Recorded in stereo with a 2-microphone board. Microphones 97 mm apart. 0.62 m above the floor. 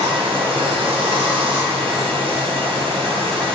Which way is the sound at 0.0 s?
70° right (ahead or behind).